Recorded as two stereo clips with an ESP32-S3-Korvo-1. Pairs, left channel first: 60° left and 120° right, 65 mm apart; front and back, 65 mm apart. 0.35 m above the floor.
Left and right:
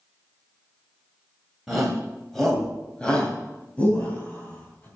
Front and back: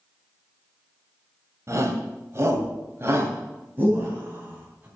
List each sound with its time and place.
1.7 s a shout: 155° left, 2 m; by 4.9 s 115° left, 3 m